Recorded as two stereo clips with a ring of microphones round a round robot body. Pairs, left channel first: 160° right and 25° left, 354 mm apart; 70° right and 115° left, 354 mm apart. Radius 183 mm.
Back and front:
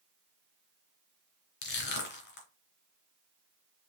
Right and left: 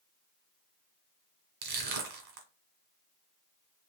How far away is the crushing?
About 1.9 m.